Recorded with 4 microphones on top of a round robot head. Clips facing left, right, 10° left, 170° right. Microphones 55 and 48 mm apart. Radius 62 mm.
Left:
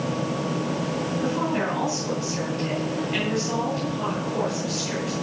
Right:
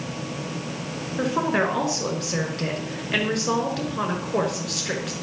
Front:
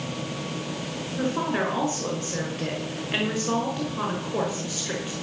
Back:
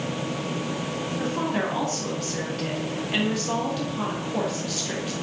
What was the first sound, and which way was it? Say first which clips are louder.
A woman speaking: right 5 dB, front 2 dB; 60° right.